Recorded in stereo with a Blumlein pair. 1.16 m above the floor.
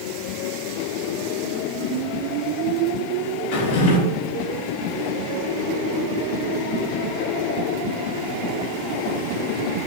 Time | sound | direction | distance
3.5 | a drawer | 55° left | 1.4 m